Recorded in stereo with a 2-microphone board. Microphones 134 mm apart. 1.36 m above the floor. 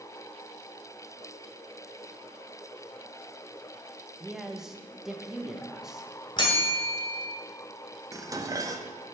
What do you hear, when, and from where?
4.2 s a man speaking: 5° right (ahead or behind), 0.9 m
6.4 s a bell: 40° left (ahead or behind), 1.7 m
8.1 s dishes clattering: 25° right (ahead or behind), 0.6 m